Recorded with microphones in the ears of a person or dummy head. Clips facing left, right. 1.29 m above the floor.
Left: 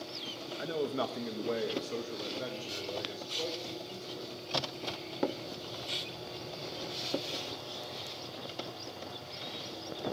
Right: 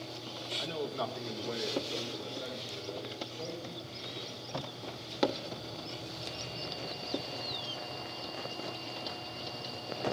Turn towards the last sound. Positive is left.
turn(degrees=75)  # may be behind; listen again after turning